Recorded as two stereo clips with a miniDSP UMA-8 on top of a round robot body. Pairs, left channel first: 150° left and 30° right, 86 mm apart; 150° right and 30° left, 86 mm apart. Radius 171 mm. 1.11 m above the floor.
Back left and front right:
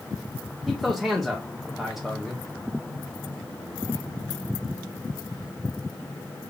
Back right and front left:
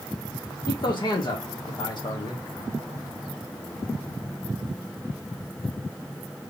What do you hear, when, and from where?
0.7 s a man speaking: 115° right, 1.2 m